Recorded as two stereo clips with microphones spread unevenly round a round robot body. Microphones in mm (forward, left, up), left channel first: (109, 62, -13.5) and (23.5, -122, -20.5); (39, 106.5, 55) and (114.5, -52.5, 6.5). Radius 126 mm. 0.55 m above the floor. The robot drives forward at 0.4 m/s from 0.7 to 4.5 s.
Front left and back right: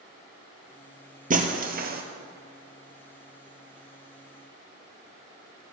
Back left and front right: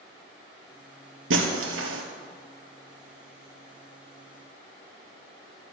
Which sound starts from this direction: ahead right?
Breaking glass, at 1.3 s.